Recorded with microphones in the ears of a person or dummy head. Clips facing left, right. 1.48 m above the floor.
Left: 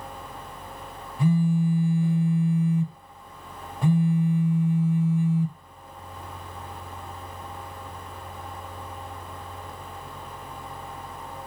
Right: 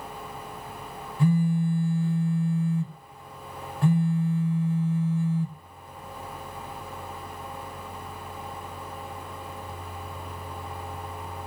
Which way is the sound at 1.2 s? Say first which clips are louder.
Left 1 dB; 15° left (ahead or behind).